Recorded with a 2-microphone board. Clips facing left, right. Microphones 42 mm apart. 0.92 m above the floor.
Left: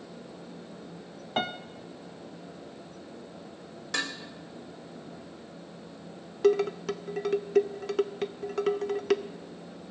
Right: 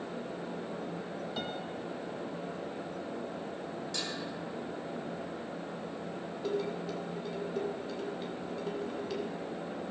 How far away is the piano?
About 0.6 m.